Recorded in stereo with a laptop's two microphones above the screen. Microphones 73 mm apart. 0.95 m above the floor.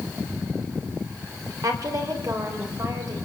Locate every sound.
1.6 s a woman speaking: 55° right (ahead or behind), 3.5 m